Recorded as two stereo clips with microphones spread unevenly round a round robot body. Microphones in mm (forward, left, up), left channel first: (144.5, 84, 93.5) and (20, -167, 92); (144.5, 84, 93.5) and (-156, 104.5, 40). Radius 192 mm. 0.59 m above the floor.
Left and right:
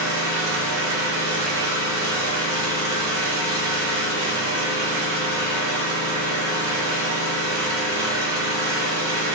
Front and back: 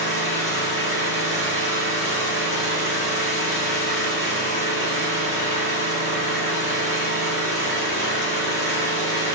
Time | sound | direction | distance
0.0 | an engine running | 110° right | 1.0 m